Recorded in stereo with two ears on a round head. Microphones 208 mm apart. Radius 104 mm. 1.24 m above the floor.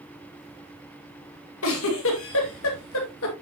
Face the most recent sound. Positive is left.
turn(degrees=60)  # may be behind; listen again after turning